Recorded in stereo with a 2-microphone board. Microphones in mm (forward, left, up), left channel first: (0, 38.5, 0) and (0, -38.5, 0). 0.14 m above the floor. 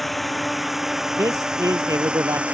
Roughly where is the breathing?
No breathing in this recording.